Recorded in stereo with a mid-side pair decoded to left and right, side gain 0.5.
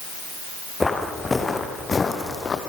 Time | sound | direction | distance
0.8 | footsteps | 15° left | 3.5 m